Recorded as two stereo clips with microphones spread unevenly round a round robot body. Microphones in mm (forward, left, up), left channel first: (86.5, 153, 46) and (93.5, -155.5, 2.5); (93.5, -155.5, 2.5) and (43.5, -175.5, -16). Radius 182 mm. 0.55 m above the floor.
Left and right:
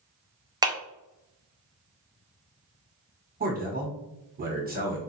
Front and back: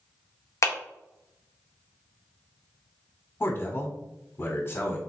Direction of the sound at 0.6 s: 20° right.